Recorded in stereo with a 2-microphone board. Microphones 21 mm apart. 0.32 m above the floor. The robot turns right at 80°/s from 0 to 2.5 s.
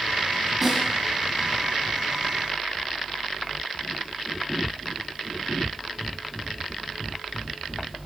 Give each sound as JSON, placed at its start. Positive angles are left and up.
{"t": 0.6, "sound": "a snare drum", "side_deg": -15, "distance_m": 7.0}